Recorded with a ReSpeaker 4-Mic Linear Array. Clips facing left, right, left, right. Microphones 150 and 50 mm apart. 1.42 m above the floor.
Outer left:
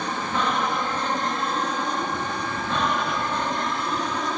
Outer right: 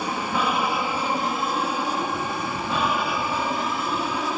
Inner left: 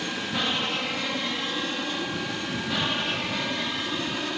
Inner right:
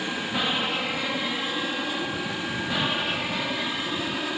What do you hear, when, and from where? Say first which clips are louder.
0.0 s an aircraft: outer right 1 dB, inner right 1 dB; 10° right (ahead or behind); by 4.4 s 5° right (ahead or behind)